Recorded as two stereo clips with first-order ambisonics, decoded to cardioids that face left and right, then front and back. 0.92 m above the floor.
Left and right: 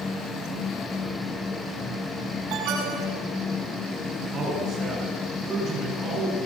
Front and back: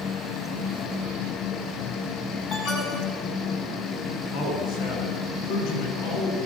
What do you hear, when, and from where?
2.5 s an alarm: 55° right, 7.5 m
4.3 s a man speaking: 30° right, 8.5 m